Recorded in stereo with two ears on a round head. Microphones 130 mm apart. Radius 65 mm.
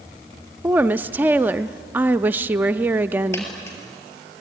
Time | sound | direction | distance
0.6 | a woman speaking | 15° right (ahead or behind) | 0.5 m
3.3 | a dropped coin | 20° left (ahead or behind) | 6.5 m